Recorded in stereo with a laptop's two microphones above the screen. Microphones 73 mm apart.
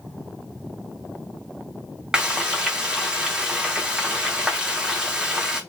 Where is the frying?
10° right (ahead or behind), 0.5 m.